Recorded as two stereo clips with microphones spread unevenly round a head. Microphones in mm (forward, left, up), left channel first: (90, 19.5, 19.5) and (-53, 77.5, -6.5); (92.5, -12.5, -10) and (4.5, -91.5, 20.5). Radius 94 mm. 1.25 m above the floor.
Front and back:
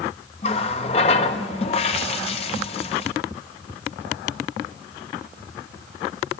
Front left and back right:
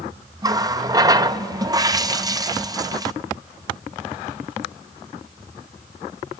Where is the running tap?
80° right, 1.1 m.